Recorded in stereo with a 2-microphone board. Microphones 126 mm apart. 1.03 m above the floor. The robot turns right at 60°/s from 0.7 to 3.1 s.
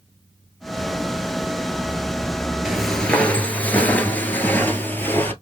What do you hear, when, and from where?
2.6 s footsteps: 5° right (ahead or behind), 1.1 m; by 5.3 s 15° left (ahead or behind), 1.3 m